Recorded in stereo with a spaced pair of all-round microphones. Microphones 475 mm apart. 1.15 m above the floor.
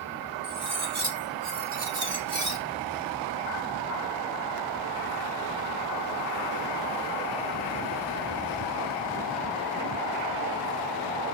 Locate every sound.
0.4 s cutlery clinking: 75° right (ahead or behind), 1.3 m